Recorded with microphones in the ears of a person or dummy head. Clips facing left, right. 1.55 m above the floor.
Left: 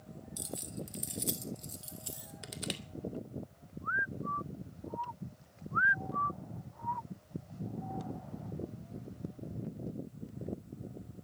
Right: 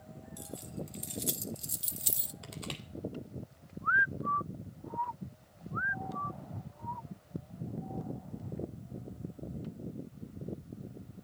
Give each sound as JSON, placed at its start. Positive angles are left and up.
{"t": 0.4, "sound": "keys jangling", "side_deg": 30, "distance_m": 1.1}
{"t": 2.4, "sound": "crushing", "side_deg": 20, "distance_m": 1.9}